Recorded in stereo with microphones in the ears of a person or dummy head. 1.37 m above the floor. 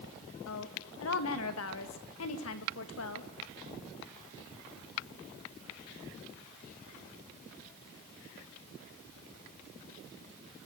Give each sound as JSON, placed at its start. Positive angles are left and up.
{"t": 0.5, "sound": "a woman speaking", "side_deg": 85, "distance_m": 2.0}